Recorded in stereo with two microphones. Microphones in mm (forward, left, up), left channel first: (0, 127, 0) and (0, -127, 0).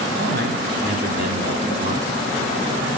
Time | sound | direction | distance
0.2 | a man speaking | 45° right (ahead or behind) | 2.5 m